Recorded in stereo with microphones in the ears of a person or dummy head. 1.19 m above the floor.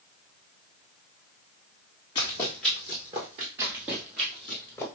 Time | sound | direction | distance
2.1 | running footsteps | 20° left (ahead or behind) | 1.3 m
3.6 | running footsteps | 15° right (ahead or behind) | 1.4 m